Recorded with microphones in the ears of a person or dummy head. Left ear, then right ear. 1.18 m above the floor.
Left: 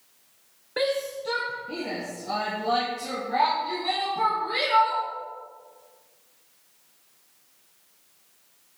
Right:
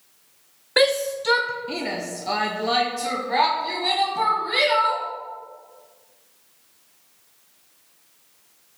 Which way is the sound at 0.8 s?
55° right (ahead or behind).